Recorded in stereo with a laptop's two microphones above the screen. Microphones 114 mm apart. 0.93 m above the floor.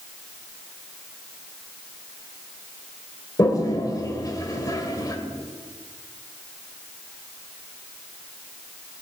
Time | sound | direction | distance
3.4 | a toilet flushing | 35° left (ahead or behind) | 1.5 m